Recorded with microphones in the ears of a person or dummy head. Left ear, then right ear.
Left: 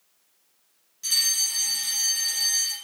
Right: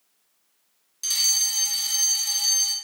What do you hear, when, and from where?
1.0 s a fire alarm: 25° right (ahead or behind), 1.4 m